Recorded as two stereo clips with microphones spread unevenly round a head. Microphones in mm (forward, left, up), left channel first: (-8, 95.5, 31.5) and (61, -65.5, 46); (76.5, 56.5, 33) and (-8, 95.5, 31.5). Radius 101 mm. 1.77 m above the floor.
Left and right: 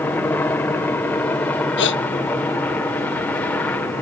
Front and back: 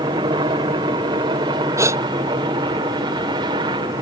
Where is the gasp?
100° left.